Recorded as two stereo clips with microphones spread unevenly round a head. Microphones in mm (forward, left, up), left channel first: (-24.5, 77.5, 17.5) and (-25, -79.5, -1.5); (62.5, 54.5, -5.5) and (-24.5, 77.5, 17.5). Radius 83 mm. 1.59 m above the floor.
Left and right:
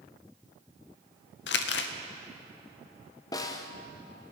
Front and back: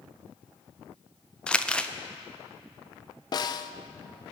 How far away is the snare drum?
About 0.7 m.